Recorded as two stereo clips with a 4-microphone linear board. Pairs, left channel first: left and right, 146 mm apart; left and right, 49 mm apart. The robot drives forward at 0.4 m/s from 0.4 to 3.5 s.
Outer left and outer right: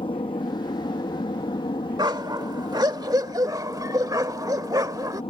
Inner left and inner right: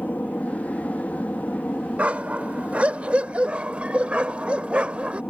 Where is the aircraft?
40° left (ahead or behind).